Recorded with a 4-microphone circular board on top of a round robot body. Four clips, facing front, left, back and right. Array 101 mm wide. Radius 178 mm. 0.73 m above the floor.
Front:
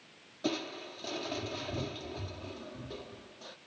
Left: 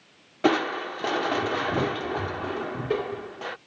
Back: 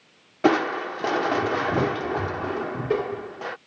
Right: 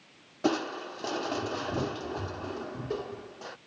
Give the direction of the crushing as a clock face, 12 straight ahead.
7 o'clock.